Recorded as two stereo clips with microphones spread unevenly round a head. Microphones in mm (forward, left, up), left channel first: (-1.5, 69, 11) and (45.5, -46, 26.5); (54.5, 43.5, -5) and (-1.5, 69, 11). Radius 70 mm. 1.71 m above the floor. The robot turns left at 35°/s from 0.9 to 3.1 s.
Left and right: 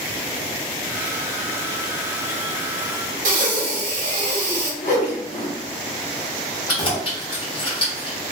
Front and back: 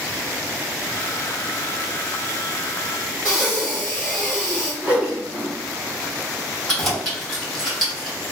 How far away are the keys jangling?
About 1.5 m.